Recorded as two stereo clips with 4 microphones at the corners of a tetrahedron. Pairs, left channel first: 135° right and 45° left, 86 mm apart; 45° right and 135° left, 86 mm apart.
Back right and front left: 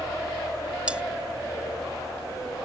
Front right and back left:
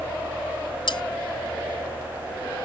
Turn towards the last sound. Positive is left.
turn(degrees=-30)